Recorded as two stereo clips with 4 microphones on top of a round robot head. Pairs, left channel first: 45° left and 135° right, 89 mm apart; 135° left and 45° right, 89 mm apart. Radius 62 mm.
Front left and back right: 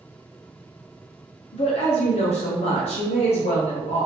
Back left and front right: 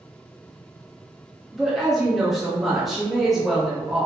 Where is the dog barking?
I don't hear a dog barking.